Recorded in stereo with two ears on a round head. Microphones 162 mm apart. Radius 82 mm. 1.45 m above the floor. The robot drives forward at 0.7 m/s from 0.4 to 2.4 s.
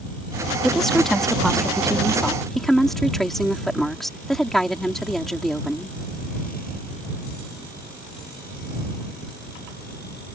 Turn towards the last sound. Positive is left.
turn(degrees=0)  # may be behind; listen again after turning